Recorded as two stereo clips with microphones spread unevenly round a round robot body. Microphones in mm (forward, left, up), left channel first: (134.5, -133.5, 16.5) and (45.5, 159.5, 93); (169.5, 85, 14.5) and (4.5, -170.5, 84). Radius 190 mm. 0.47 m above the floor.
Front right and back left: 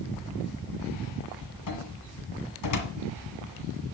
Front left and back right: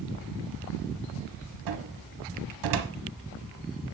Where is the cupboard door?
110° right, 1.7 m.